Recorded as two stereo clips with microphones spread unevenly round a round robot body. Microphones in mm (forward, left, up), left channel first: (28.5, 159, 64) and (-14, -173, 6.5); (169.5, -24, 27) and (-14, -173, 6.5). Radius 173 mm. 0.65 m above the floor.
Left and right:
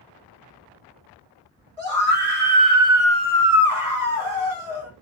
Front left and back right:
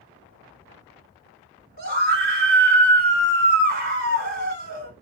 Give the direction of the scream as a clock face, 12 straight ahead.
4 o'clock.